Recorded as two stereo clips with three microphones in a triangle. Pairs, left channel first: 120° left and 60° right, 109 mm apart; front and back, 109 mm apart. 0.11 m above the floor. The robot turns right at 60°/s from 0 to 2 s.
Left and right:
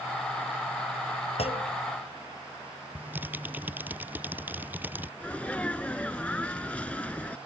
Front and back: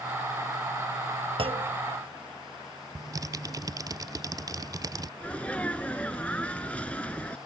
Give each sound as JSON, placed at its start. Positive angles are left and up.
{"t": 1.4, "sound": "a clunk", "azimuth_deg": 145}
{"t": 3.0, "sound": "typing on a keyboard", "azimuth_deg": -130}
{"t": 5.2, "sound": "a sneeze", "azimuth_deg": 60}